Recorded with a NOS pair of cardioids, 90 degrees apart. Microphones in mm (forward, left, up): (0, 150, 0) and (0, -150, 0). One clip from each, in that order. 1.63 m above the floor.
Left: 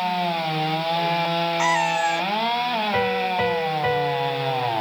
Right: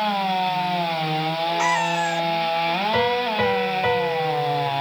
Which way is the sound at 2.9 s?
10° right.